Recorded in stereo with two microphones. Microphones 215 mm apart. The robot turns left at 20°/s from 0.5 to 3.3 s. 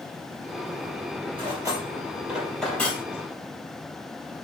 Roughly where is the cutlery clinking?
Right.